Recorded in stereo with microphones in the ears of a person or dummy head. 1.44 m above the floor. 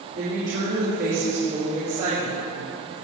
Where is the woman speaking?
50° right (ahead or behind), 3.5 m; by 2.4 s 55° right (ahead or behind), 6 m.